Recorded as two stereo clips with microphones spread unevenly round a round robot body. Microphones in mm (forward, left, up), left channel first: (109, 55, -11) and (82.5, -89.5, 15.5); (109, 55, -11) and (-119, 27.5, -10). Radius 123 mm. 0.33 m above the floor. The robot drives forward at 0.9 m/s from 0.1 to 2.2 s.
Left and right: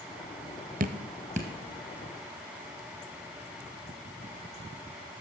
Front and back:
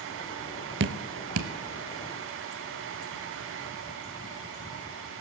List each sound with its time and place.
0.8 s dripping: 140° right, 0.6 m; by 1.5 s 165° right, 1.1 m